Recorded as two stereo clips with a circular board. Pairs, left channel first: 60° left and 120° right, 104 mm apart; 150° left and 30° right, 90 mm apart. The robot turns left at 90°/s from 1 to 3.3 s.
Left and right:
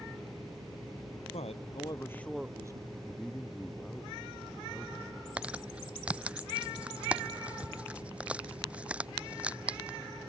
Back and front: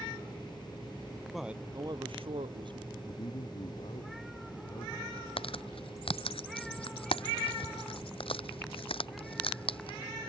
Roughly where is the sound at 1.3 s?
Ahead left.